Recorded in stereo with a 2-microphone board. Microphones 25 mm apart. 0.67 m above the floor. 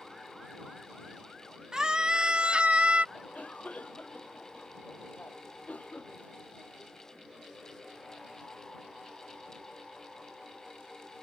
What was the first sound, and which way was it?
A scream, 25° right (ahead or behind).